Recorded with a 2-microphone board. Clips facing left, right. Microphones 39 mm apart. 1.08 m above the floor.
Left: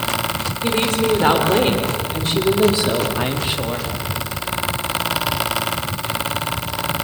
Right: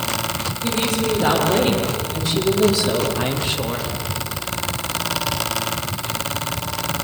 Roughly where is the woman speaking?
Left.